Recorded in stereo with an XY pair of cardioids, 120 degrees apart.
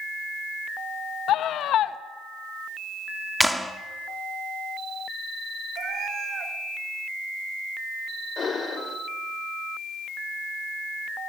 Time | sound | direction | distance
1.3 | a scream | 65° left | 1.2 m
3.4 | a clap | straight ahead | 1.8 m
5.8 | a cat meowing | 55° right | 2.5 m
8.4 | breathing | 40° left | 2 m